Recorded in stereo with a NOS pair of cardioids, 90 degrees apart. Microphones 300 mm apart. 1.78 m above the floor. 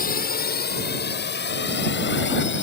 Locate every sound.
0.0 s a drone: 30° left; by 2.6 s 40° left